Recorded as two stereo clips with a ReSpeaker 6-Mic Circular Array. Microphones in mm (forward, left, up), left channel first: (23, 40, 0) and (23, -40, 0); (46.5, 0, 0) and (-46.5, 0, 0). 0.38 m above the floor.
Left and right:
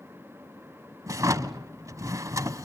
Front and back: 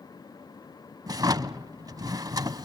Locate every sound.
1.1 s a drawer: 135° right, 0.6 m